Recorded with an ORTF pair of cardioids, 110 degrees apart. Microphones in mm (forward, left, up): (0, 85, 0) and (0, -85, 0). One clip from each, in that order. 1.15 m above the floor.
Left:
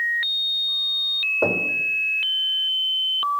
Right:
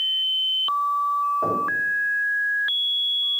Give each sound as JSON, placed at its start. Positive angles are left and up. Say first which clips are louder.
{"t": 1.4, "sound": "knocking", "louder": "left 2 dB", "azimuth_deg": 65, "distance_m": 3.0}